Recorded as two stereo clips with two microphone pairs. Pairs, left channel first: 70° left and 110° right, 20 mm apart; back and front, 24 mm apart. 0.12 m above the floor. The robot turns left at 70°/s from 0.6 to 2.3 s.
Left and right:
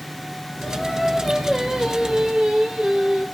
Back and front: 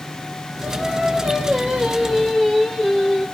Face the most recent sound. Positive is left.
turn(degrees=-95)